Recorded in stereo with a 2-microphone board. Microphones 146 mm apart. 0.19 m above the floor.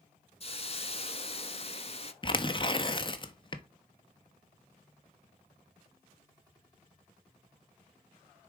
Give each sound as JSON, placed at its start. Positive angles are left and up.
{"t": 0.4, "sound": "a hiss", "side_deg": 40, "distance_m": 0.6}
{"t": 2.2, "sound": "tearing paper", "side_deg": 35, "distance_m": 0.7}